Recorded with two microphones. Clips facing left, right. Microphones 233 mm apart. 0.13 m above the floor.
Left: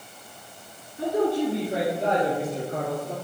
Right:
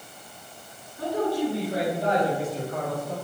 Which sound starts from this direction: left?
A man speaking, at 1.0 s.